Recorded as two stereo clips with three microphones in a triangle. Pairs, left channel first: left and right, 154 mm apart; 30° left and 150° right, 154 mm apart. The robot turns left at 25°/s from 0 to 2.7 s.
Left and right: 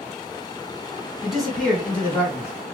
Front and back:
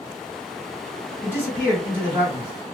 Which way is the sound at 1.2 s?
175° left.